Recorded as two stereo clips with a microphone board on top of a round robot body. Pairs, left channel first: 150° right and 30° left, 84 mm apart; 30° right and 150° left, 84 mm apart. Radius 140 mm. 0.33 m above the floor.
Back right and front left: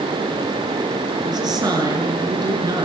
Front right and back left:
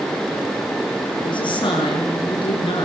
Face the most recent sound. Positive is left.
turn(degrees=-5)